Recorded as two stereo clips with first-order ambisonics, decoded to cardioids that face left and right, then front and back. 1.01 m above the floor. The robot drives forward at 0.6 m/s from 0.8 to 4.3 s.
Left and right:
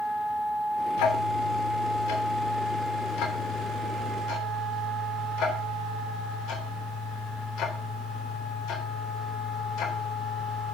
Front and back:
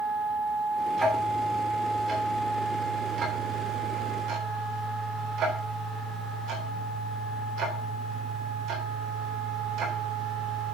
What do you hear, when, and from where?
1.0 s ticking: 95° left, 2.5 m; by 10.7 s 130° left, 3.5 m